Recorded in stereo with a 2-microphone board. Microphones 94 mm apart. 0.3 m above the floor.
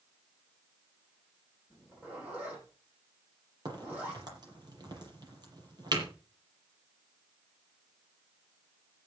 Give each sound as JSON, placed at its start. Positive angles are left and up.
{"t": 1.7, "sound": "a zipper", "side_deg": -20, "distance_m": 9.5}
{"t": 3.6, "sound": "a crack", "side_deg": -45, "distance_m": 6.5}